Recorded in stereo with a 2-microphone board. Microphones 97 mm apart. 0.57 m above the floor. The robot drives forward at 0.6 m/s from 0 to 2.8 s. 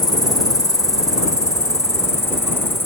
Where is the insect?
40° left (ahead or behind); by 2.9 s 25° left (ahead or behind).